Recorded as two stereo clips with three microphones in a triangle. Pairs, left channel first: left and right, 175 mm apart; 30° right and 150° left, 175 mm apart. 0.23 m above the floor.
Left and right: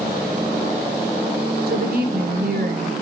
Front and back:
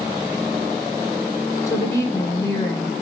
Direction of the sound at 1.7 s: 100° right.